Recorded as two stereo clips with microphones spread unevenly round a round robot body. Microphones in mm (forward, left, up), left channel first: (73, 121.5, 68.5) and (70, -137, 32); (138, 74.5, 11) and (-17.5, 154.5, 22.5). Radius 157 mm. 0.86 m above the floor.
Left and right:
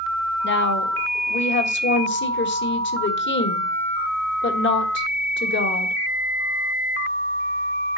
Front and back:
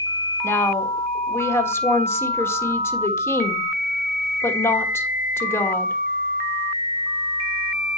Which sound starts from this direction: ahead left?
A woman speaking, at 0.4 s.